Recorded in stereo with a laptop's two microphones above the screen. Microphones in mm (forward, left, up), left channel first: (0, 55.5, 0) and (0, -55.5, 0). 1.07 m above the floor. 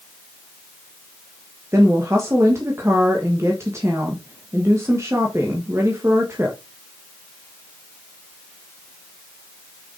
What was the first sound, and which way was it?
A woman speaking, 25° right (ahead or behind).